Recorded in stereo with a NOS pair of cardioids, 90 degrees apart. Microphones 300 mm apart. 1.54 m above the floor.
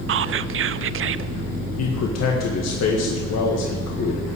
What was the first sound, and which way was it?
Whispering, 45° right.